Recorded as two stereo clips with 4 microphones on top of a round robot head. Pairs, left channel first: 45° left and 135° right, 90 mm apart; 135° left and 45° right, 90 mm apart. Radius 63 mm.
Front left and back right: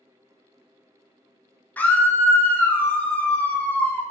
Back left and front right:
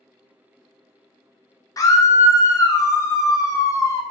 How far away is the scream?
About 0.5 m.